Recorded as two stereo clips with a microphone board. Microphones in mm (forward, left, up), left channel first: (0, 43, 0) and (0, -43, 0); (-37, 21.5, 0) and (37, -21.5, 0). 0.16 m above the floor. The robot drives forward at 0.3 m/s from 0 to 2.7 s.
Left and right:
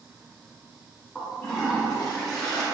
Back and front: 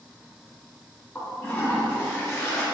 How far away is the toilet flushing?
About 1.6 m.